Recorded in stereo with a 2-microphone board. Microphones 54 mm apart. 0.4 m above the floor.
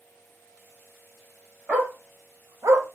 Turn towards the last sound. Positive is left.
turn(degrees=-70)  # may be behind; listen again after turning